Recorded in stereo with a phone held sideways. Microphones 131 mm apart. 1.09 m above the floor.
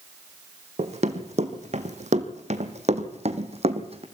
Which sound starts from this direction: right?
Running footsteps, at 0.8 s.